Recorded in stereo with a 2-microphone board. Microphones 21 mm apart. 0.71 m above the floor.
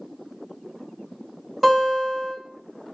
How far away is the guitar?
About 1.6 m.